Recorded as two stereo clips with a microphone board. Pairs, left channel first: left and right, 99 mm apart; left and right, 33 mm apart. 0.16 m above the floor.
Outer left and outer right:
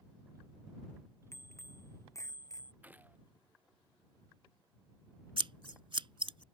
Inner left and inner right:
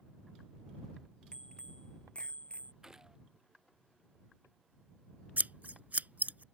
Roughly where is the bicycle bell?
Left.